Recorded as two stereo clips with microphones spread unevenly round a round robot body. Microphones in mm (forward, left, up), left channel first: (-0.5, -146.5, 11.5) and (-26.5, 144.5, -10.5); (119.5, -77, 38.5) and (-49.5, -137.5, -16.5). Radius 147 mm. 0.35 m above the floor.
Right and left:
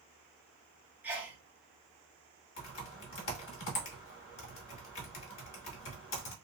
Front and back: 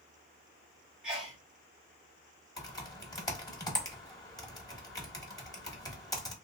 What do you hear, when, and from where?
1.0 s a sneeze: 160° left, 0.9 m
2.6 s typing on a keyboard: 60° right, 1.2 m